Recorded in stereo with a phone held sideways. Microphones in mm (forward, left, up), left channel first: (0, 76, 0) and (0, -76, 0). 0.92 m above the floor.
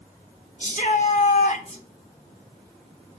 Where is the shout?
55° left (ahead or behind), 4 m; by 1.8 s 50° left (ahead or behind), 3.5 m.